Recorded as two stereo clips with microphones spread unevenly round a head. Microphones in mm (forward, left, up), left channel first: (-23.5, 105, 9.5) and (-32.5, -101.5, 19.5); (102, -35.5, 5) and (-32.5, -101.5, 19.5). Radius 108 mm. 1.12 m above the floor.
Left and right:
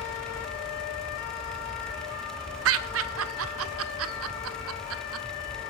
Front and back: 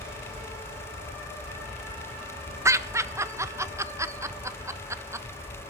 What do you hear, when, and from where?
2.6 s laughter: 80° right, 1.4 m